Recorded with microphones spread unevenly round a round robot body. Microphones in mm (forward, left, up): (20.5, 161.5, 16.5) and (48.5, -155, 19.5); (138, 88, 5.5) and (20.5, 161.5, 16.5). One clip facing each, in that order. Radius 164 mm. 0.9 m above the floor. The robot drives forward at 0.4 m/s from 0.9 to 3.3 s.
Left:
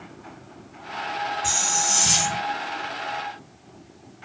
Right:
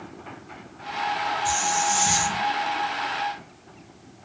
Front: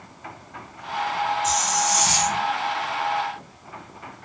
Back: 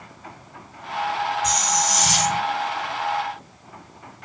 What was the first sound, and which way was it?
A hiss, 135° left.